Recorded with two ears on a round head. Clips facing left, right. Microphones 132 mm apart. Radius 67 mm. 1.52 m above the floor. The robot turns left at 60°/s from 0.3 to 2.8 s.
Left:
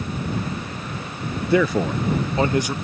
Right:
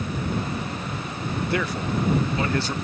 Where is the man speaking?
80° left; by 2.7 s 10° left.